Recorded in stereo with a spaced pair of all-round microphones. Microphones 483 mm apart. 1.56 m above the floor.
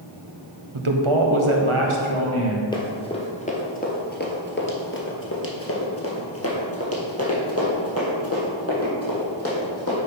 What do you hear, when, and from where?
0.7 s a man speaking: 80° right, 0.9 m; by 2.6 s 85° right, 1.9 m
2.7 s running footsteps: 10° left (ahead or behind), 1.8 m; by 10.0 s 30° left (ahead or behind), 3.5 m